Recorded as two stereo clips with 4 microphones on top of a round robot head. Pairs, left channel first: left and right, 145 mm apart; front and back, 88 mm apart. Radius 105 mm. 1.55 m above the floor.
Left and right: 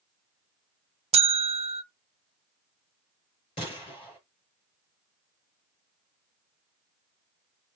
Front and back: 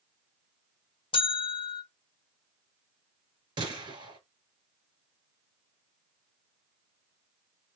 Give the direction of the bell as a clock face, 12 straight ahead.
2 o'clock.